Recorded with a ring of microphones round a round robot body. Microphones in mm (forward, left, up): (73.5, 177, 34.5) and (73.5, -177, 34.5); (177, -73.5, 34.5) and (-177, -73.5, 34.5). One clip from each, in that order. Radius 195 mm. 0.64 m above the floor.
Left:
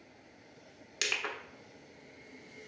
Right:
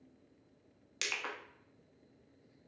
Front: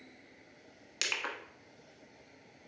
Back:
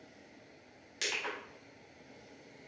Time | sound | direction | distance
1.0 | crushing | 5° right | 1.1 m